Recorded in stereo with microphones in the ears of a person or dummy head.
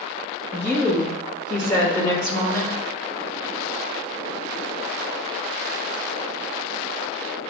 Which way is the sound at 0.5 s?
10° left (ahead or behind).